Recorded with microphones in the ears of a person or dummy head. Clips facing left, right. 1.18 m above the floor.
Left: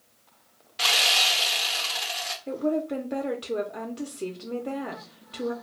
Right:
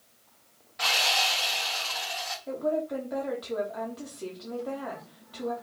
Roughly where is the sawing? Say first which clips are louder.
Even; left.